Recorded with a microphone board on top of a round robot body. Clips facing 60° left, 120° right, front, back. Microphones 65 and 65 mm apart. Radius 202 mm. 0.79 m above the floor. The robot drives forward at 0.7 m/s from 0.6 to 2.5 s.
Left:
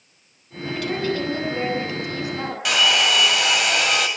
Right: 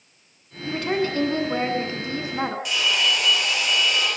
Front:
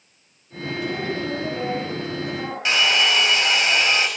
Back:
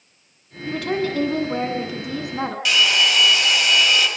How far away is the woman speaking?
About 7.5 m.